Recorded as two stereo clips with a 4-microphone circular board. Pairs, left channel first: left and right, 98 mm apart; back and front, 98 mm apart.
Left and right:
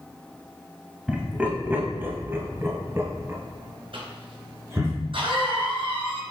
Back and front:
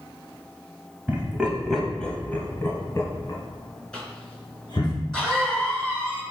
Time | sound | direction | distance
1.1 | laughter | 30° right | 1.0 m
3.9 | a cough | 100° right | 2.5 m